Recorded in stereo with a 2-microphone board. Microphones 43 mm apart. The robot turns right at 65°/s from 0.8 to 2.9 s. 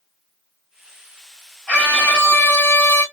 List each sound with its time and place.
1.7 s a scream: 15° left, 2 m; by 3.0 s 95° left, 2 m